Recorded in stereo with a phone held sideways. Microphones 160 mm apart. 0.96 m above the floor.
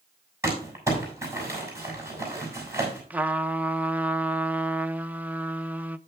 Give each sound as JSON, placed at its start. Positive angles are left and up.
{"t": 0.4, "sound": "crumpling", "side_deg": -20, "distance_m": 6.5}
{"t": 3.1, "sound": "a trumpet", "side_deg": -10, "distance_m": 0.6}